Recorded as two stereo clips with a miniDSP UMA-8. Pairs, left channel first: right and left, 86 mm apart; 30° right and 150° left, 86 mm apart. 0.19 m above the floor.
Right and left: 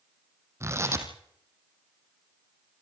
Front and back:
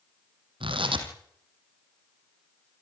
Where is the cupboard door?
No cupboard door in this recording.